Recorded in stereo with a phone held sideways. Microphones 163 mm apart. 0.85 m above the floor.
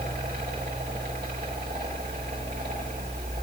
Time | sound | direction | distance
0.0 | a fan | 80° right | 2 m